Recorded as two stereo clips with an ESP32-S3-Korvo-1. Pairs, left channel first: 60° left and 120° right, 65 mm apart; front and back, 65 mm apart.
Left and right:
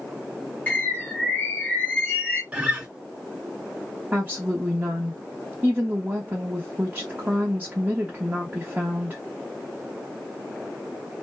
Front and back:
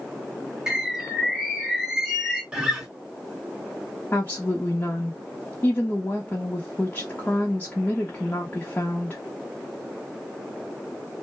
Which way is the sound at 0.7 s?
105° left.